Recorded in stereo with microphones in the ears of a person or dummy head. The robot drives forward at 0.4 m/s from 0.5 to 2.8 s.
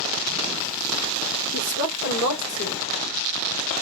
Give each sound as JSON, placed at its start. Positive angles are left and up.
{"t": 1.5, "sound": "a woman speaking", "side_deg": 40, "distance_m": 4.0}